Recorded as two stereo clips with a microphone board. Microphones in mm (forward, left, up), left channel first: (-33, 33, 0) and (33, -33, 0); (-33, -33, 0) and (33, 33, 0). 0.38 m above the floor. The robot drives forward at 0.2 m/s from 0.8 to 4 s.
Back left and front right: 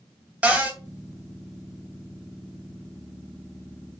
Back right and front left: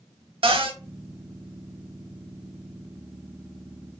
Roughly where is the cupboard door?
Ahead left.